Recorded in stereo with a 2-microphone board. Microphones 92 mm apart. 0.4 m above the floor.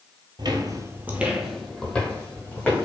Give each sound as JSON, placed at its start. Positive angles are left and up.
{"t": 0.4, "sound": "footsteps", "side_deg": -55, "distance_m": 0.6}